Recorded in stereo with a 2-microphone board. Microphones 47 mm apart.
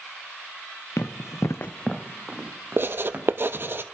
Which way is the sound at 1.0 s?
70° left (ahead or behind).